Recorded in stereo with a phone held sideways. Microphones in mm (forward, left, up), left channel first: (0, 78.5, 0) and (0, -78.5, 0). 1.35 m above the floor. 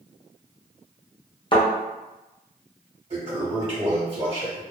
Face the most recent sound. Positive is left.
turn(degrees=-40)  # may be behind; listen again after turning